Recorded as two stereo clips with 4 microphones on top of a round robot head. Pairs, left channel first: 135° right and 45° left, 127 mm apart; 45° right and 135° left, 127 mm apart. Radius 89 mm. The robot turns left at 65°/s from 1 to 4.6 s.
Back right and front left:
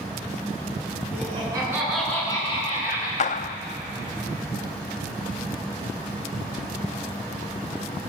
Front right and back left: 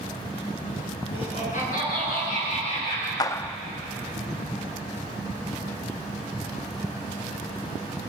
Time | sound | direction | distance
1.1 | laughter | 10° left | 7.5 m
3.2 | a clap | 105° right | 0.7 m